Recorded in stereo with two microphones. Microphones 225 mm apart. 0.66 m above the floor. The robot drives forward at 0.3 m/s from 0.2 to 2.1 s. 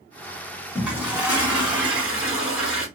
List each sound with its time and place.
0.8 s a toilet flushing: 5° right (ahead or behind), 1.9 m